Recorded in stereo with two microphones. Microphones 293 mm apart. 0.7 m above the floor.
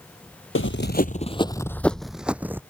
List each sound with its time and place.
0.6 s running footsteps: 45° left (ahead or behind); by 2.6 s 5° right (ahead or behind)